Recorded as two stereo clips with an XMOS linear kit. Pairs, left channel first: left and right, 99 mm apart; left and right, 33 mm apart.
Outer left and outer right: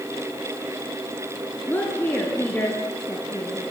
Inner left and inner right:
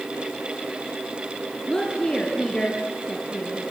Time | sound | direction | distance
1.7 | a woman speaking | 20° left (ahead or behind) | 4 m